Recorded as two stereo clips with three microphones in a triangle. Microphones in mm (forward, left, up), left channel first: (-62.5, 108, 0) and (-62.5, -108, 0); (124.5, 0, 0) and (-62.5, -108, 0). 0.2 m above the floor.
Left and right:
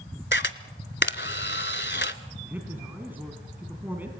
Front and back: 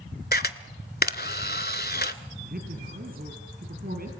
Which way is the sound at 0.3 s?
65° left.